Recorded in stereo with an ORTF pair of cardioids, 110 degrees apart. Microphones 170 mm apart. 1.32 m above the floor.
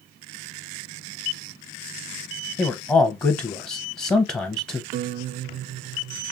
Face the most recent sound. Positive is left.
turn(degrees=-55)